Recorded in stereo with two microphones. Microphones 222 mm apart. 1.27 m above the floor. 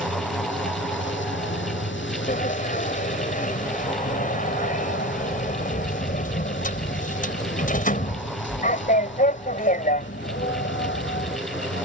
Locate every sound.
0.0 s a vehicle: 60° left (ahead or behind)
2.3 s a sliding door: 35° left (ahead or behind)